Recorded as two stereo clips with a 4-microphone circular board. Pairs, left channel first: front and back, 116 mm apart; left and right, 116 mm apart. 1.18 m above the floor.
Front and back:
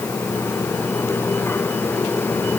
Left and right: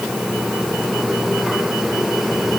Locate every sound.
Only background noise.